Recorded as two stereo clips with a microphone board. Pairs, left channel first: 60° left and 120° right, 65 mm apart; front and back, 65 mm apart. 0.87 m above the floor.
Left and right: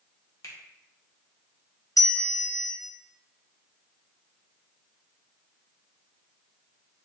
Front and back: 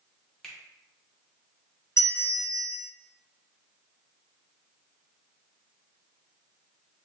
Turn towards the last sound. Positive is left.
turn(degrees=40)